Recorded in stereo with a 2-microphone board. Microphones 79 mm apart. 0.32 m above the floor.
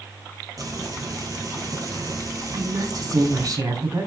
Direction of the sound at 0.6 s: 45° right (ahead or behind).